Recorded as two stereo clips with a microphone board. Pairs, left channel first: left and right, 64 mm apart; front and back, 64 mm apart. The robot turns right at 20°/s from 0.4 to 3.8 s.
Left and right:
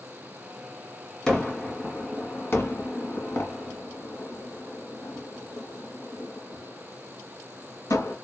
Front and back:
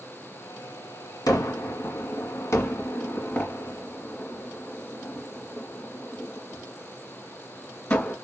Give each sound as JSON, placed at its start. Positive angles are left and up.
{"t": 1.3, "sound": "a gunshot", "azimuth_deg": 10, "distance_m": 1.5}